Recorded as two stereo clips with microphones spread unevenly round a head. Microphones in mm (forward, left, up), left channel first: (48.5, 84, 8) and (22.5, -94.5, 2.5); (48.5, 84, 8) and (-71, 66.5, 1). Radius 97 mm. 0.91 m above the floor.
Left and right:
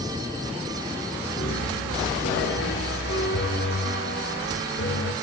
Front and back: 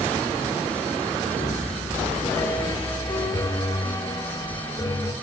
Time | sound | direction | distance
1.4 | a piano | 65° left | 2.5 m